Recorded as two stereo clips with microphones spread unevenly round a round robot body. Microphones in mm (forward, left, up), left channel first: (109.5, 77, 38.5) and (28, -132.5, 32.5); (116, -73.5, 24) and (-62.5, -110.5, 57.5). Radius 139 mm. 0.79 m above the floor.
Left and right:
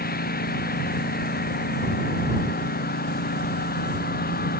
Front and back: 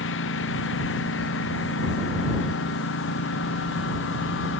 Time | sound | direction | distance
0.0 | a lawn mower | 20° left | ?